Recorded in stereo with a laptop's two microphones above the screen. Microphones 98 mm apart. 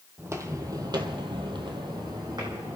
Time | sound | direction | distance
0.2 | footsteps | 25° right (ahead or behind) | 2 m